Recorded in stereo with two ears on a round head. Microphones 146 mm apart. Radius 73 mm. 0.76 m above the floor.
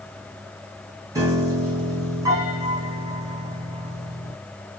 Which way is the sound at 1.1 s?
25° right (ahead or behind).